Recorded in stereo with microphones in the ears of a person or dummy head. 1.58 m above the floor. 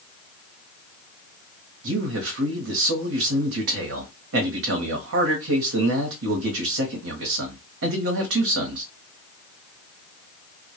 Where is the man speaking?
70° right (ahead or behind), 0.9 m.